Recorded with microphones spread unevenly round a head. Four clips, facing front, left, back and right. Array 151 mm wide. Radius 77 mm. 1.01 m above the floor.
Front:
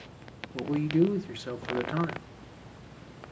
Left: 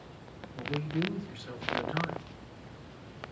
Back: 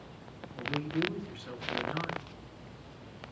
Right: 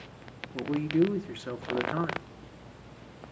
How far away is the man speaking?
About 1.5 m.